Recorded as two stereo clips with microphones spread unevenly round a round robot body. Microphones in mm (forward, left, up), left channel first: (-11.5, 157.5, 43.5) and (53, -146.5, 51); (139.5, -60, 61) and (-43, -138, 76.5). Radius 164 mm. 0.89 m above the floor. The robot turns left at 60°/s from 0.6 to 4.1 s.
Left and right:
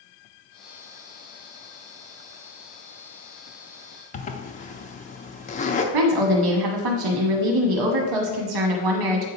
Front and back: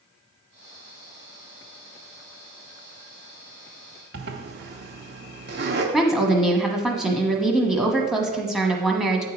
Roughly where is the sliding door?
I don't hear a sliding door.